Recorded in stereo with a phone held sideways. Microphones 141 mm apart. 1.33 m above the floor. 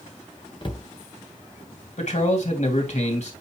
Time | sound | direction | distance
0.6 | a cupboard door | 35° left (ahead or behind) | 0.8 m
2.0 | a man speaking | 60° left (ahead or behind) | 2.5 m